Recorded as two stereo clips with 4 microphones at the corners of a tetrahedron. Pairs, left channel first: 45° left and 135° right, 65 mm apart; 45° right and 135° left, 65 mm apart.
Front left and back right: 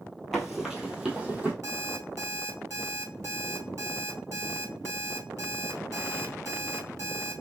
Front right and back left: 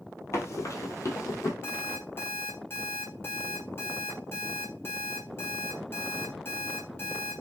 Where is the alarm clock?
95° right, 1.3 m.